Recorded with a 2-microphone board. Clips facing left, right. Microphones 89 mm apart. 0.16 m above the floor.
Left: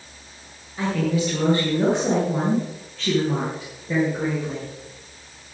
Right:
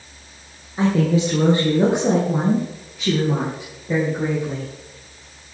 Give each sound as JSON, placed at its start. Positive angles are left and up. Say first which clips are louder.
{"t": 0.8, "sound": "a woman speaking", "louder": "right 5 dB", "side_deg": -30, "distance_m": 3.0}